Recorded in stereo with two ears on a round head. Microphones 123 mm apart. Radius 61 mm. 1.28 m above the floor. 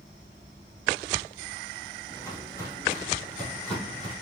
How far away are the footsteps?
About 1.8 m.